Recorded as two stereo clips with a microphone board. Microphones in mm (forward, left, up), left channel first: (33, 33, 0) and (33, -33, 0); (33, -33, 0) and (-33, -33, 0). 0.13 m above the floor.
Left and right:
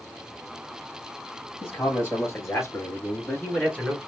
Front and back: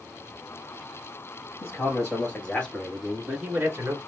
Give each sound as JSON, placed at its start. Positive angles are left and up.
{"t": 1.6, "sound": "a man speaking", "azimuth_deg": 50, "distance_m": 2.5}